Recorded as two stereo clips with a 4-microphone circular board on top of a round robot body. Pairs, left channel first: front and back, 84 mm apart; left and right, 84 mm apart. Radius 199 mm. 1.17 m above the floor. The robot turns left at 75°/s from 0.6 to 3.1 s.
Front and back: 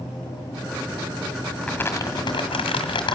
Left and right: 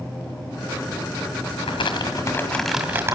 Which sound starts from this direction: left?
Crumpling, at 1.6 s.